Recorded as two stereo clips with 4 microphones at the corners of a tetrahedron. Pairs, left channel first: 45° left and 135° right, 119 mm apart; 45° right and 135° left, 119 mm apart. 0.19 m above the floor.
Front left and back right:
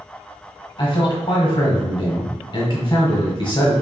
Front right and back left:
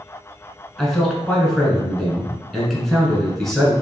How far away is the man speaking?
About 1.4 m.